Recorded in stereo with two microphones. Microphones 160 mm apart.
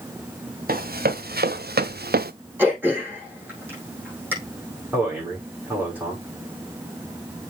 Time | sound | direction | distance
0.7 | running footsteps | 70° right (ahead or behind) | 1.5 m
2.6 | throat clearing | 10° right (ahead or behind) | 5 m
4.9 | a man speaking | 10° right (ahead or behind) | 5.5 m